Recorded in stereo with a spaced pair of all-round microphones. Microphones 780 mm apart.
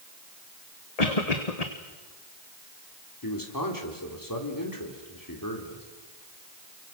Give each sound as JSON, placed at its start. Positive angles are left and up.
{"t": 1.0, "sound": "a cough", "side_deg": 50, "distance_m": 1.5}
{"t": 3.2, "sound": "a man speaking", "side_deg": 25, "distance_m": 4.0}